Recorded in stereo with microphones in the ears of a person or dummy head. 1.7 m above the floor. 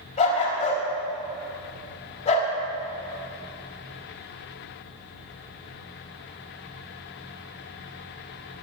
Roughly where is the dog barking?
Left.